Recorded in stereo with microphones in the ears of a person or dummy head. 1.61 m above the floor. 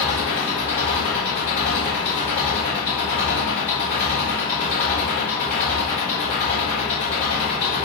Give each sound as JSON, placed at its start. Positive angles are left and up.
{"t": 0.0, "sound": "an engine running", "side_deg": 35, "distance_m": 1.2}